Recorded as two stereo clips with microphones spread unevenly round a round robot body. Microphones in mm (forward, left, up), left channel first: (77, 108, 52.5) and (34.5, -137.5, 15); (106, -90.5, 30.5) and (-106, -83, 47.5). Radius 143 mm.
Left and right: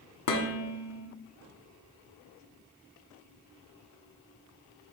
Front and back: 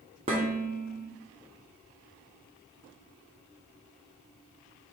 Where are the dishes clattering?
110° left, 1.0 m.